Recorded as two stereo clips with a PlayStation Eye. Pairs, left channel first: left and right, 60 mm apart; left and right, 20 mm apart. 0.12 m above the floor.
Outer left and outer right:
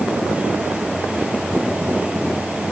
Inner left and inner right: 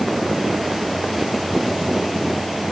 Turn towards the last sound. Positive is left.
No sound to turn to.